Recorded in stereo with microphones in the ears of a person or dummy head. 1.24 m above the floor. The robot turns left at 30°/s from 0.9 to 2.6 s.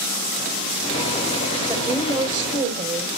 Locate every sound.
1.7 s a woman speaking: 20° right (ahead or behind), 4 m; by 3.1 s 45° right (ahead or behind), 4 m